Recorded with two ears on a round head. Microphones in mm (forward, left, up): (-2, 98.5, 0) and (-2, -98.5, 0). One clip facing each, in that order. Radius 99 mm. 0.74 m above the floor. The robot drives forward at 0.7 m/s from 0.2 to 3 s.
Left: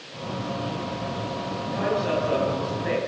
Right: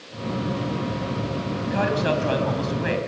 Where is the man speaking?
80° right, 6 m; by 3.0 s 75° right (ahead or behind), 6 m.